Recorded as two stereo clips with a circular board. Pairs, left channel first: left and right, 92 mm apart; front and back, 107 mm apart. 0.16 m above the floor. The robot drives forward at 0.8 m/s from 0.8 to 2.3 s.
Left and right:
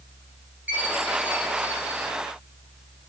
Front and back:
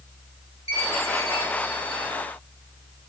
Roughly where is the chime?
Ahead.